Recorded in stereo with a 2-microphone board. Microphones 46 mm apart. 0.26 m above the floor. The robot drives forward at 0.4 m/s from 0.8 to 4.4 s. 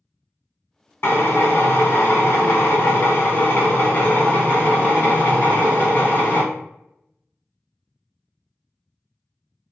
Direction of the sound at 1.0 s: 50° left (ahead or behind).